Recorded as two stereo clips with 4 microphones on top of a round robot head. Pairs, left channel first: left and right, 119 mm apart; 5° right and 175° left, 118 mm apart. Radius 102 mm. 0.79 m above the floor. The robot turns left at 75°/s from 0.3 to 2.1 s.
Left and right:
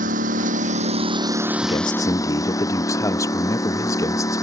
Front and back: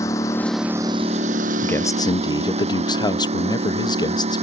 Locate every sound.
0.0 s a lawn mower: 75° right; by 4.4 s 150° left
1.6 s a man speaking: 70° left; by 4.4 s 35° left